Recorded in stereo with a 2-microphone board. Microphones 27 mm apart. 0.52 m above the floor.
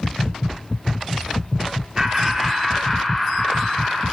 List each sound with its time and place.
2.0 s laughter: 15° right (ahead or behind), 1.1 m; by 4.0 s 15° left (ahead or behind), 2.5 m